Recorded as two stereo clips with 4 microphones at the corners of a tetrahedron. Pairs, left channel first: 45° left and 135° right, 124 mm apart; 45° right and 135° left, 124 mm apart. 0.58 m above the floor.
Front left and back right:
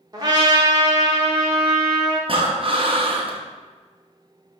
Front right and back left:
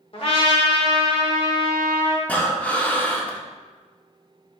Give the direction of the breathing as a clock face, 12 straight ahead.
4 o'clock.